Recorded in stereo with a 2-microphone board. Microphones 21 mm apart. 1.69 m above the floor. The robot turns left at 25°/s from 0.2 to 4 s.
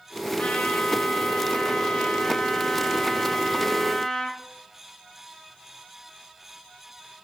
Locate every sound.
0.4 s a trumpet: 105° left, 4 m; by 4.4 s 15° left, 4 m